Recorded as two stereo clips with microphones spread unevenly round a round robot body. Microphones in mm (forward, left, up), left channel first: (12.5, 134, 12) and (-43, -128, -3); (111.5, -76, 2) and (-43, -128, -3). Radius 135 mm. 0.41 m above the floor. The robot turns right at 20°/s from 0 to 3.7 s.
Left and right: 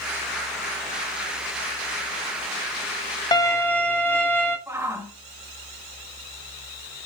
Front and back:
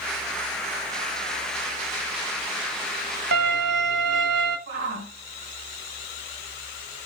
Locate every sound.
3.3 s a violin: 155° left, 1.6 m; by 4.6 s 160° left, 1.6 m
4.7 s a shout: 175° left, 2.5 m